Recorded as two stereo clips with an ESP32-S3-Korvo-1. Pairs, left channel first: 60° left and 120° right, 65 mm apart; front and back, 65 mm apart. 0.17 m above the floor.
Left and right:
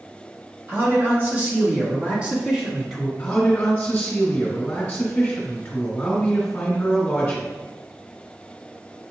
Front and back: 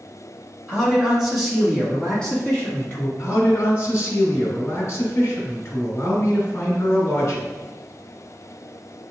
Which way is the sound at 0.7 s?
110° right.